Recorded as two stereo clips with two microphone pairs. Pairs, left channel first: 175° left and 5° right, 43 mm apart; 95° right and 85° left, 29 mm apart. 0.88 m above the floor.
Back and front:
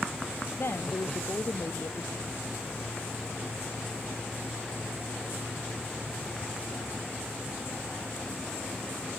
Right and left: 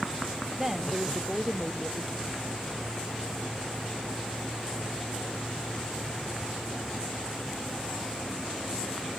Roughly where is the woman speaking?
Behind.